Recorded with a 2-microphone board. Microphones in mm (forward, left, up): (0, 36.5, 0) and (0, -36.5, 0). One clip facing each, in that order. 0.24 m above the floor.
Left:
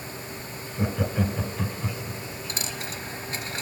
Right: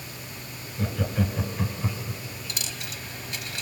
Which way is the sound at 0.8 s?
20° left (ahead or behind).